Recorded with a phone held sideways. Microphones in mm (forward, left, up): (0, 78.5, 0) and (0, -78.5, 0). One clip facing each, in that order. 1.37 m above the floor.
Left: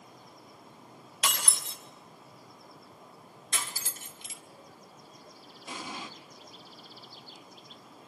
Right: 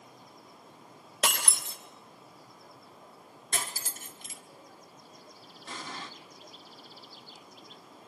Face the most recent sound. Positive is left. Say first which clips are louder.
# left 2 dB
turn(degrees=10)  # may be behind; listen again after turning